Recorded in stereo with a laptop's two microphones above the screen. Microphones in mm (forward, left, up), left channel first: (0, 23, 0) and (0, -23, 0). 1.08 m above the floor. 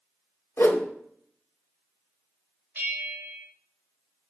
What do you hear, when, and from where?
0.6 s a whoosh: 80° left, 1.1 m
2.8 s a bell: 50° right (ahead or behind), 1.9 m